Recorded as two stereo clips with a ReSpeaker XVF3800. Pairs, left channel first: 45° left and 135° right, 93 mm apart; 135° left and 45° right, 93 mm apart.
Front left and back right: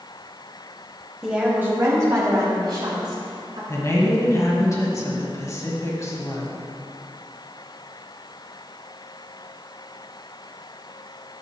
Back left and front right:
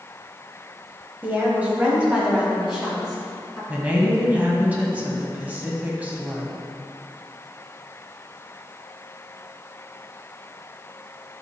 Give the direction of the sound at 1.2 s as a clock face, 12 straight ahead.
2 o'clock.